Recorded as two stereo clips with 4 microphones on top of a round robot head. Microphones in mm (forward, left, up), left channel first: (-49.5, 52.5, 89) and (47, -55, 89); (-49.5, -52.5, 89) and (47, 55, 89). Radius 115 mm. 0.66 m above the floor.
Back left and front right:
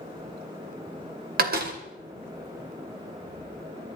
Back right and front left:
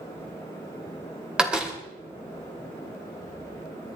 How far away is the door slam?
About 2.5 m.